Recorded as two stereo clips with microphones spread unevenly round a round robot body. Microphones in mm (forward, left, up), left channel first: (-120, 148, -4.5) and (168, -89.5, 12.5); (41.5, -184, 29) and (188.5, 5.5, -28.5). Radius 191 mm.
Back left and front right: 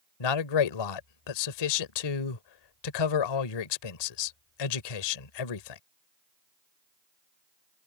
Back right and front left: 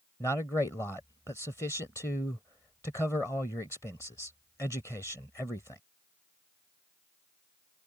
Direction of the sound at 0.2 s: 145° left.